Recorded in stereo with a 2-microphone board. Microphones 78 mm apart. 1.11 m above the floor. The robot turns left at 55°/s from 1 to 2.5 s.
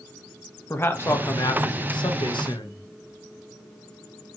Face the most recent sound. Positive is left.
turn(degrees=65)